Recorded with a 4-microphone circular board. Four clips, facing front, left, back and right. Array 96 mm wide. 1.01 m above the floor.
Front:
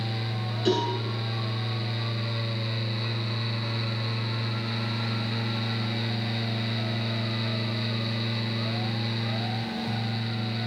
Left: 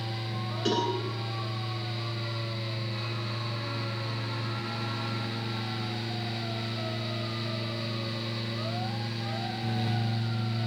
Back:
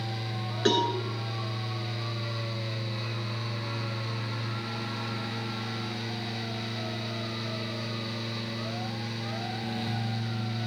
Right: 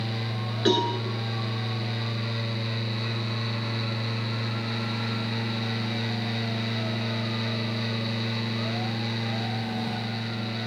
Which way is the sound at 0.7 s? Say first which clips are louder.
Right 5 dB, even; 150° right.